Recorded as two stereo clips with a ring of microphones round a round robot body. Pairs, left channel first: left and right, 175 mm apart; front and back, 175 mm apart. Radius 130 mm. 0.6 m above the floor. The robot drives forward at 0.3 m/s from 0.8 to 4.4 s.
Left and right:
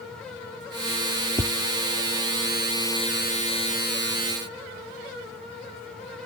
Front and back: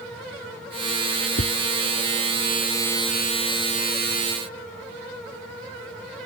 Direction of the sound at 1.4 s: 30° right.